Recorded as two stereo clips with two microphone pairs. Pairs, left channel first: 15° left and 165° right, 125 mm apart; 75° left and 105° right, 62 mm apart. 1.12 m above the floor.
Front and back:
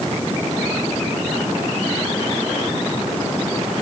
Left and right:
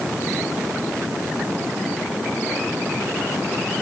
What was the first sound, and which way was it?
Only background noise.